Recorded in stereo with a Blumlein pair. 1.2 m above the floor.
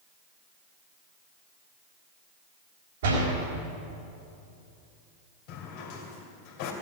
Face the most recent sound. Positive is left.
turn(degrees=45)